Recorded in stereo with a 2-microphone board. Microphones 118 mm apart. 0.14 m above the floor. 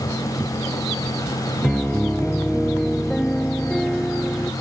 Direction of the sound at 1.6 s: 5° left (ahead or behind).